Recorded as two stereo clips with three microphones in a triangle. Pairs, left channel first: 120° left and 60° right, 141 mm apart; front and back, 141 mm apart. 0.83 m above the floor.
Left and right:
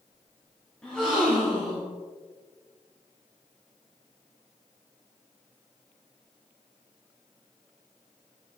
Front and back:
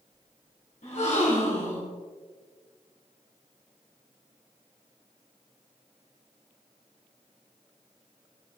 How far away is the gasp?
About 3 m.